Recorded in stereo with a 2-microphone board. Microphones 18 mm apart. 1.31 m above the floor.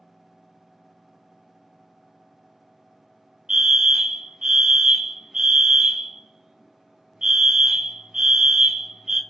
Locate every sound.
3.5 s a fire alarm: 40° right (ahead or behind), 1.8 m